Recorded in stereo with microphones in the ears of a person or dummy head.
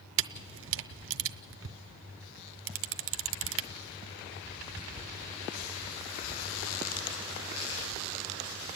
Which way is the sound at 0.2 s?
70° right (ahead or behind).